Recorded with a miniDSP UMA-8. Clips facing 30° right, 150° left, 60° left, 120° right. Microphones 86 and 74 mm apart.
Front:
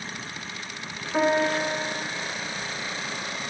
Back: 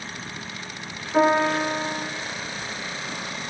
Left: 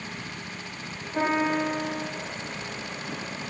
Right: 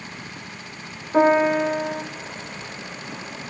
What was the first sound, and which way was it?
A piano, 115° right.